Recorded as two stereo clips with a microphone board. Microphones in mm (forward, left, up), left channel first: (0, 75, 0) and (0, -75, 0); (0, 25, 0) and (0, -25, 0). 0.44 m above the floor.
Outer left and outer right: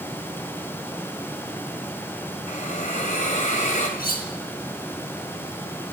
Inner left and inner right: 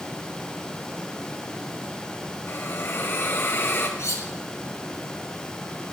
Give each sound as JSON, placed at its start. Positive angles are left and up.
{"t": 2.5, "sound": "a hiss", "side_deg": 55, "distance_m": 2.5}
{"t": 4.0, "sound": "cutlery clinking", "side_deg": 85, "distance_m": 2.5}